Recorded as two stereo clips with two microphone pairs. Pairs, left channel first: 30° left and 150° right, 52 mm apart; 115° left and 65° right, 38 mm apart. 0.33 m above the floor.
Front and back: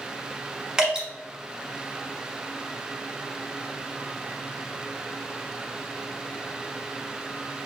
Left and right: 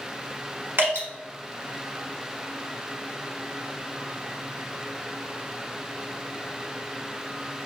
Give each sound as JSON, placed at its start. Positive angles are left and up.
{"t": 0.8, "sound": "dripping", "azimuth_deg": -70, "distance_m": 1.7}